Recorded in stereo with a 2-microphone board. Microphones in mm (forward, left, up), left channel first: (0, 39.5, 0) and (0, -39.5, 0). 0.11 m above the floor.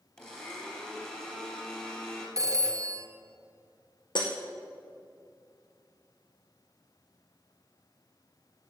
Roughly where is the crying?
I don't hear crying.